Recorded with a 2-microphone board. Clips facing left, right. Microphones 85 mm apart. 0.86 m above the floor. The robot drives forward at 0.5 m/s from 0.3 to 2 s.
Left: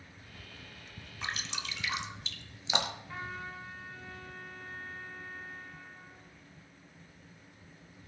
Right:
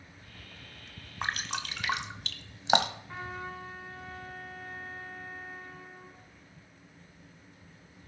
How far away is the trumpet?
About 8 m.